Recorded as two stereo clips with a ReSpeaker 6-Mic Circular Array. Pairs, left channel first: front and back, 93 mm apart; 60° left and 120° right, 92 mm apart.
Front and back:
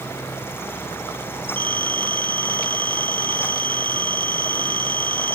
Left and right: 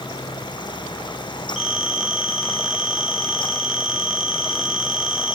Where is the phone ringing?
155° left, 1.7 m.